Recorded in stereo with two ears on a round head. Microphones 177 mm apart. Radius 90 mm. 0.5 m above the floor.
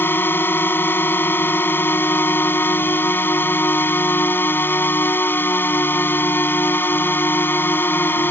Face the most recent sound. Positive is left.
turn(degrees=10)  # may be behind; listen again after turning